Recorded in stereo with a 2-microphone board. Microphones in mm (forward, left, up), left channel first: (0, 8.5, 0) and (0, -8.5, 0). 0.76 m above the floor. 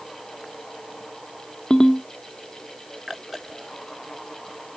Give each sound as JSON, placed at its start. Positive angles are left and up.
{"t": 1.7, "sound": "a ringtone", "side_deg": 65, "distance_m": 0.8}